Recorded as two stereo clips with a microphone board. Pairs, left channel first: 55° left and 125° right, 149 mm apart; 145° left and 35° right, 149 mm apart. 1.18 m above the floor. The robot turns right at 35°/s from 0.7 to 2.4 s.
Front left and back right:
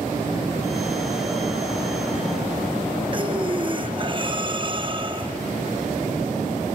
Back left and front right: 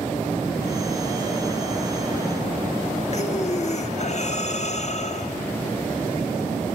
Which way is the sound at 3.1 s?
175° right.